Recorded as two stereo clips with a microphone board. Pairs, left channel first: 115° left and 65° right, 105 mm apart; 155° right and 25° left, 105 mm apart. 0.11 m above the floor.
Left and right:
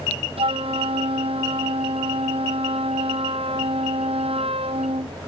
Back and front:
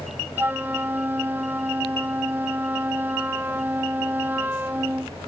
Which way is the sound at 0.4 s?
50° right.